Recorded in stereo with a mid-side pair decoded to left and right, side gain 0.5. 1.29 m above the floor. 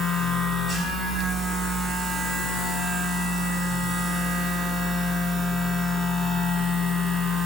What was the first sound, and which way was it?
A machine running, 35° right.